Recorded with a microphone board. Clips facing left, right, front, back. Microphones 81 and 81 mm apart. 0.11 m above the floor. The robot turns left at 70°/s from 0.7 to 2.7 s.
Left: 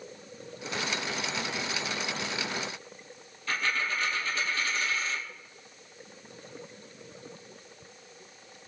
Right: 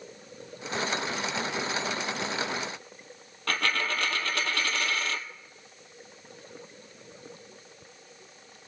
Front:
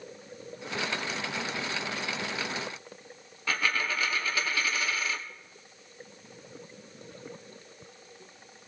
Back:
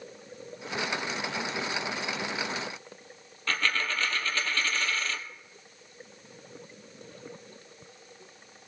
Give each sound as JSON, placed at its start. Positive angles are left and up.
{"t": 3.5, "sound": "a dropped coin", "azimuth_deg": -80, "distance_m": 0.9}